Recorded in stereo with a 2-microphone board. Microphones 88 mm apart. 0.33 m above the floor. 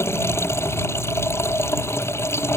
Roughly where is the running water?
Left.